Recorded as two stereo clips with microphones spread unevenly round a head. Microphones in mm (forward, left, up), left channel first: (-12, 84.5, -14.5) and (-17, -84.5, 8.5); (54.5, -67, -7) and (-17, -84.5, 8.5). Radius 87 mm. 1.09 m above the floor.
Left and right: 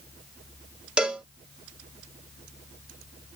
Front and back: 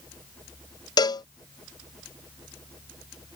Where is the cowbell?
5° right.